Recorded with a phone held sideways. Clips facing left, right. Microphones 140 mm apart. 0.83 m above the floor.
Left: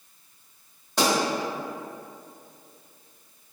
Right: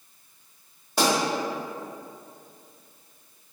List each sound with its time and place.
1.0 s a pop: 5° right (ahead or behind), 1.7 m